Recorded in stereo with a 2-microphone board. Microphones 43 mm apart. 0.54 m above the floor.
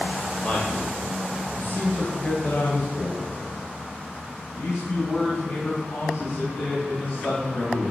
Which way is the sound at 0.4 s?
35° left (ahead or behind).